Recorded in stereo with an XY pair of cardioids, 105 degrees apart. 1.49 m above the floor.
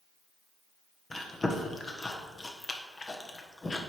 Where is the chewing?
25° left, 1.1 m.